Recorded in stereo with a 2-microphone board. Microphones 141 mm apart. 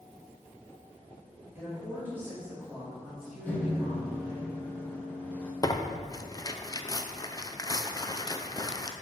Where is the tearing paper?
25° left (ahead or behind), 0.5 m.